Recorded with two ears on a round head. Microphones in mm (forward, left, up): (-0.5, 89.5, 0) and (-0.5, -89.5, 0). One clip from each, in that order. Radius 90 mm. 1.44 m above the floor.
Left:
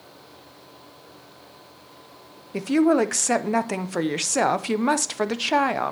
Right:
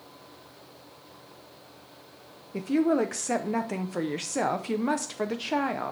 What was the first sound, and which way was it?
A woman speaking, 25° left (ahead or behind).